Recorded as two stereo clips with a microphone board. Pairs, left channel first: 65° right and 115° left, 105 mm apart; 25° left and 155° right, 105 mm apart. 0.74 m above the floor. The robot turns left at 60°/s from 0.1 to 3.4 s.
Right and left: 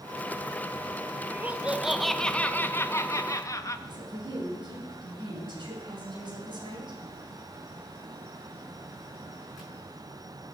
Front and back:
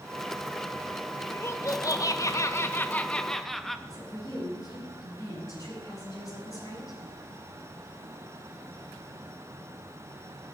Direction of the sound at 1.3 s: 65° left.